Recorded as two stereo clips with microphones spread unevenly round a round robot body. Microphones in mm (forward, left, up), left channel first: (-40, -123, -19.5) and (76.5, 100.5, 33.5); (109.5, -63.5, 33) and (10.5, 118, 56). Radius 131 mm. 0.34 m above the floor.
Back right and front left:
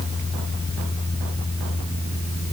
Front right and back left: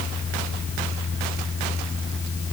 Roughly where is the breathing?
I don't hear breathing.